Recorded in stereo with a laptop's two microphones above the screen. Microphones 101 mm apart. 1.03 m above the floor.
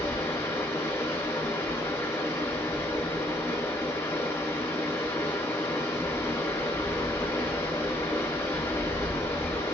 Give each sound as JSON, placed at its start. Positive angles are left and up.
{"t": 0.0, "sound": "running water", "side_deg": 25, "distance_m": 0.9}